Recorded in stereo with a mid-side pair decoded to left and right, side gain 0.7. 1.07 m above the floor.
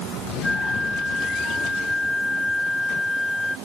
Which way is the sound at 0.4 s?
5° left.